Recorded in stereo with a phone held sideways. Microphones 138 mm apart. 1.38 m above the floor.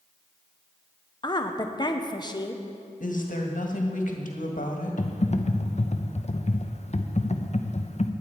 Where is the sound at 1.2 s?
30° left (ahead or behind), 1.0 m.